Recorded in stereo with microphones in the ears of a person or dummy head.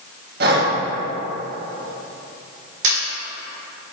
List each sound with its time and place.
0.4 s breathing: 55° right (ahead or behind), 1.2 m
2.8 s a camera shutter: 75° right (ahead or behind), 2 m